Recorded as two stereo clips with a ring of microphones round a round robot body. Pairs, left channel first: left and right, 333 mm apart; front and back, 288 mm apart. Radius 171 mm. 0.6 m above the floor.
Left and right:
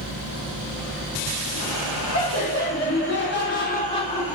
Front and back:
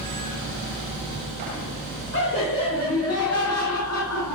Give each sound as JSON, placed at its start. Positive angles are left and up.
{"t": 2.1, "sound": "laughter", "azimuth_deg": 45, "distance_m": 2.5}